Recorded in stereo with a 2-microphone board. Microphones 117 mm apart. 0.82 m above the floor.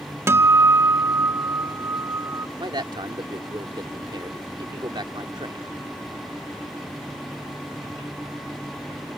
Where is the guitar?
20° right (ahead or behind).